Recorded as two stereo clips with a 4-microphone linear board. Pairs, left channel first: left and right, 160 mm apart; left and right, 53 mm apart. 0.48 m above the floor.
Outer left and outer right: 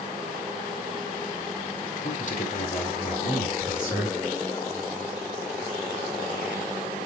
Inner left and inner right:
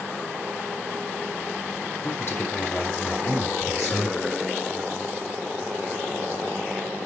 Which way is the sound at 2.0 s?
45° left (ahead or behind).